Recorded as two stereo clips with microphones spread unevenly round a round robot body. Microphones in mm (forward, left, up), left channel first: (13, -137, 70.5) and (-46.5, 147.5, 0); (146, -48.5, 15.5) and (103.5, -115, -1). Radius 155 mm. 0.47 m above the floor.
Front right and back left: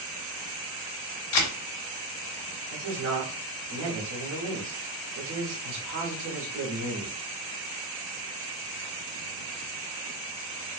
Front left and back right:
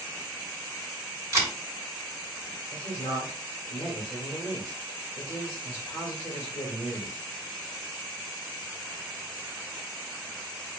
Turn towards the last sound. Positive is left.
turn(degrees=115)